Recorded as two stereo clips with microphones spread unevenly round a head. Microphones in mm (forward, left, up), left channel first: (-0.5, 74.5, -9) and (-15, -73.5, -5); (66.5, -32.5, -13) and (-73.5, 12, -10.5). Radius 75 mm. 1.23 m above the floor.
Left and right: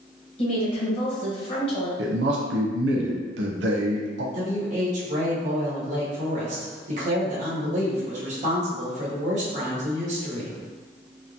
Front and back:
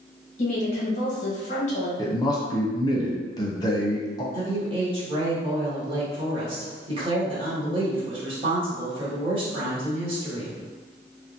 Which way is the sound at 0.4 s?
30° left.